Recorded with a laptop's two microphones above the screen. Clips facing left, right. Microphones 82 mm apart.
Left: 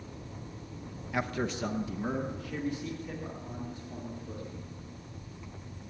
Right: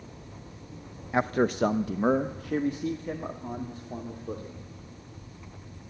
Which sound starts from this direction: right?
A man speaking, at 1.1 s.